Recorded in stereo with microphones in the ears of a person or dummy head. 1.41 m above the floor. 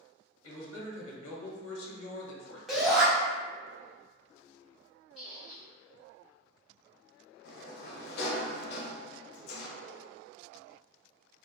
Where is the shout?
Centre (ahead or behind), 1.0 m.